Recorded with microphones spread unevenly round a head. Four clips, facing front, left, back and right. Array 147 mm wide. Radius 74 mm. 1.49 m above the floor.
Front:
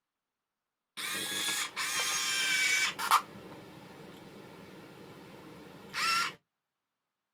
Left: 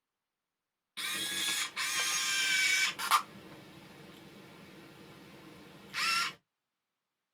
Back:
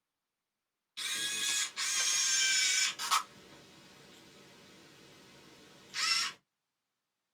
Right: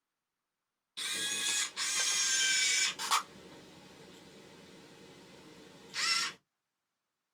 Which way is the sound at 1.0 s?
5° left.